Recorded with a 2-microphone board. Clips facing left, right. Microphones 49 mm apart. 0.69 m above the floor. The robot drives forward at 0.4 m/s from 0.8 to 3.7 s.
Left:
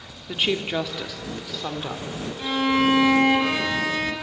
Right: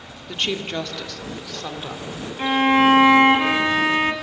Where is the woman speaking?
10° left (ahead or behind), 1.2 m.